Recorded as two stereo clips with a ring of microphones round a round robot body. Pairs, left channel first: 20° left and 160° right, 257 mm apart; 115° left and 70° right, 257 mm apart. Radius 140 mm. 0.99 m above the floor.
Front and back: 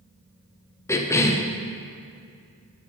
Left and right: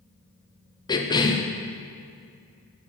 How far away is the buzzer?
I don't hear a buzzer.